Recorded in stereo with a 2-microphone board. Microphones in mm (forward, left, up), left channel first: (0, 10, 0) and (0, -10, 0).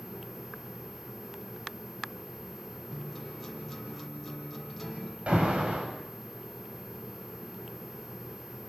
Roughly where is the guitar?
Centre.